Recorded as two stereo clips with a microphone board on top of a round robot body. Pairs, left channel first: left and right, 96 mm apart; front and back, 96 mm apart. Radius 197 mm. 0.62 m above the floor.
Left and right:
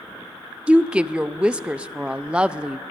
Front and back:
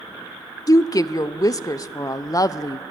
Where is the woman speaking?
20° right, 0.6 m.